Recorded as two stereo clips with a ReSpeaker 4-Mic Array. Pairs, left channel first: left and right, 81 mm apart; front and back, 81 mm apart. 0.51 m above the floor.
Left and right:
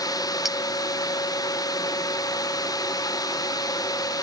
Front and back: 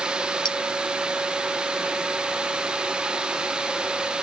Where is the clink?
5° right.